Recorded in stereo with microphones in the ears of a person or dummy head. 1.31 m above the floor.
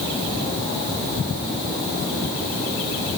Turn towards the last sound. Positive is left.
No sound to turn to.